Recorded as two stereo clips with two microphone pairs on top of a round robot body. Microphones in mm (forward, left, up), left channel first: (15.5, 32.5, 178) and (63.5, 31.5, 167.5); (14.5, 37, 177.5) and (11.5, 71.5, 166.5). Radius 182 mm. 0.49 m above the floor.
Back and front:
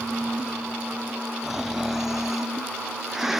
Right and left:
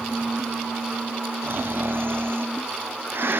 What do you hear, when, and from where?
1.4 s snoring: 85° left